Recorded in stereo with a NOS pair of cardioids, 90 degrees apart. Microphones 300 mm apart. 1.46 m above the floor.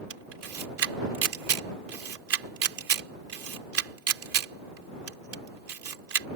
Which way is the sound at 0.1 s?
55° right.